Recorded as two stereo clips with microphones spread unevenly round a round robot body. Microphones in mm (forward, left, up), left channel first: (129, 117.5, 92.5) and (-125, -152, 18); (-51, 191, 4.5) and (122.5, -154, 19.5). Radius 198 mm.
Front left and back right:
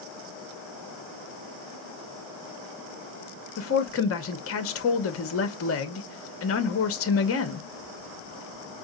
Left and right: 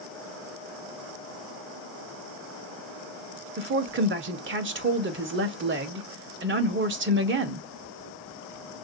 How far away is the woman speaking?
About 0.9 m.